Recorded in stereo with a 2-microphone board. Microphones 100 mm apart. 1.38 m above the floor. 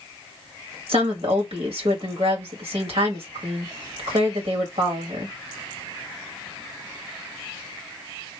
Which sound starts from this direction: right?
A woman speaking, at 0.9 s.